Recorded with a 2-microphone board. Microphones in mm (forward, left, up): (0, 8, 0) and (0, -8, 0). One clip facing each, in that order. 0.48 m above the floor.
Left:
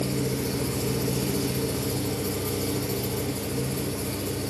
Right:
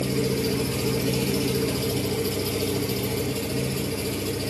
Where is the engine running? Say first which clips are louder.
Right 3 dB; 85° right, 2.5 m.